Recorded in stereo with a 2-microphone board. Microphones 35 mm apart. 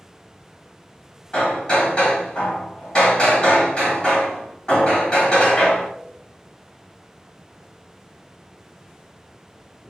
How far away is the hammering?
About 1.4 m.